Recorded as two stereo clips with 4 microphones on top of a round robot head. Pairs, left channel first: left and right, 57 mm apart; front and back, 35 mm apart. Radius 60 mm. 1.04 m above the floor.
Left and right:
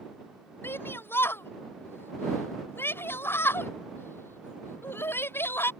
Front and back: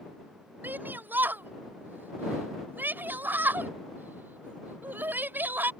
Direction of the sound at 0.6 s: 140° left.